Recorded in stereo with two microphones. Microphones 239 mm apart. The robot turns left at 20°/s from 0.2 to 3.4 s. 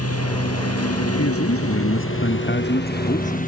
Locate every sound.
0.0 s a lawn mower: 100° left; by 3.5 s 35° left
1.2 s a man speaking: 75° left; by 3.4 s 30° left